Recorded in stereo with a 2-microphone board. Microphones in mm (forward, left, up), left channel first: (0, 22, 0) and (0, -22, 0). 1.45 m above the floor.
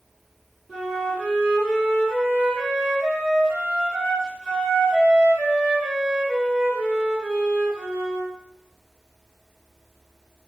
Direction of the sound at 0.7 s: 5° right (ahead or behind).